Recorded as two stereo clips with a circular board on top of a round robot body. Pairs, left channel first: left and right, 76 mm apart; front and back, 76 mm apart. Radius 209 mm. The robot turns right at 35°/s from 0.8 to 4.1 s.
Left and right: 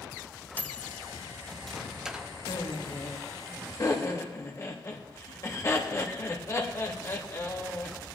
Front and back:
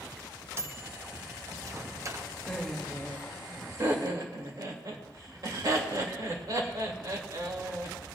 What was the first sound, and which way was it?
A microwave, 145° left.